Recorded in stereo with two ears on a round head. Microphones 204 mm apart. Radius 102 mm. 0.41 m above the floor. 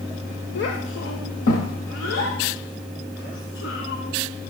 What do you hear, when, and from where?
0.6 s a child speaking: 50° left (ahead or behind), 0.9 m; by 4.5 s 60° left (ahead or behind), 3.5 m